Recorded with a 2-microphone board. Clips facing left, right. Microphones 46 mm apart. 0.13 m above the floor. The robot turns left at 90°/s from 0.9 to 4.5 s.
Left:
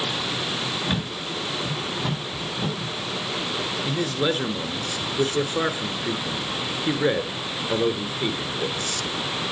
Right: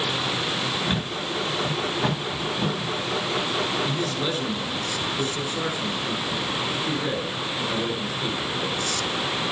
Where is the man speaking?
150° left, 1.5 m; by 9.1 s 90° left, 1.5 m.